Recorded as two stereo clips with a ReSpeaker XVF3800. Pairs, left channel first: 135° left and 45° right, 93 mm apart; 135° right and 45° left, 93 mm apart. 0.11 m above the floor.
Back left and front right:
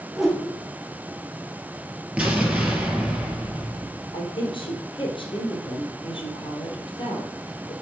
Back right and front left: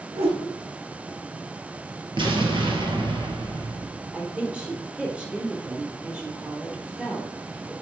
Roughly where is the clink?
I don't hear a clink.